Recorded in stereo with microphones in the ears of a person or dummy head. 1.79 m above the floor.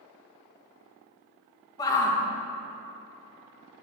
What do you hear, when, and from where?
1.8 s a shout: 20° left (ahead or behind), 1.6 m